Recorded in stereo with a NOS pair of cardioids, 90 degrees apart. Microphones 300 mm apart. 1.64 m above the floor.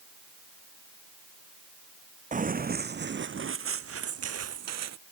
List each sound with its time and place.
2.3 s running footsteps: 25° right; by 5.0 s 65° right